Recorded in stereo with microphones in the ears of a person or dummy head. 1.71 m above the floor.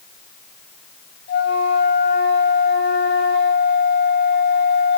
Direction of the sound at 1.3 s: 60° left (ahead or behind).